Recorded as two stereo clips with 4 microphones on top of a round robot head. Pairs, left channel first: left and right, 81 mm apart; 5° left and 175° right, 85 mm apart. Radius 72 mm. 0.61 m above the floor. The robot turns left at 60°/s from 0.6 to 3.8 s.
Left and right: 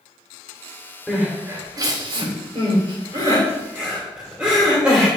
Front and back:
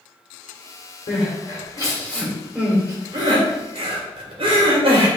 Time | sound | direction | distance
1.1 | crying | 5° right | 2 m